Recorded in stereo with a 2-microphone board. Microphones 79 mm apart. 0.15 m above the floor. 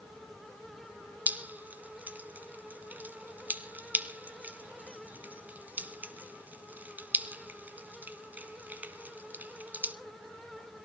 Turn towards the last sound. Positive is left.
turn(degrees=-25)  # may be behind; listen again after turning